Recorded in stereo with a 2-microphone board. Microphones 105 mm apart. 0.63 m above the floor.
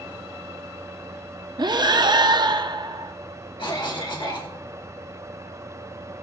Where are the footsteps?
No footsteps in this recording.